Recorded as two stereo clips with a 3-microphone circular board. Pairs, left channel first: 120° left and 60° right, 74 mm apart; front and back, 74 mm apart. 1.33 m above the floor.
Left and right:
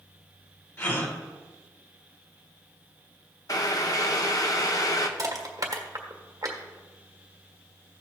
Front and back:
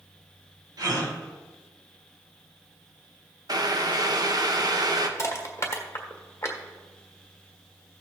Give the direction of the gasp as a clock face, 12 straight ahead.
6 o'clock.